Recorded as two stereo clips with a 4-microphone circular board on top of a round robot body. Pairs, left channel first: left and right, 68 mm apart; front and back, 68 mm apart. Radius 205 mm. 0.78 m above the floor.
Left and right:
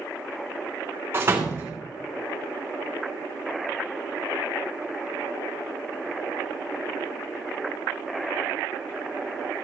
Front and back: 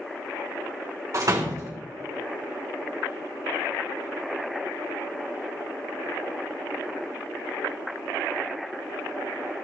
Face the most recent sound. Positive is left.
turn(degrees=-145)